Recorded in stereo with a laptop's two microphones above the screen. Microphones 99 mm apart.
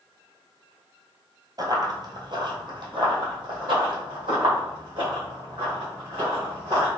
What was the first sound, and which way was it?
Running footsteps, 40° right (ahead or behind).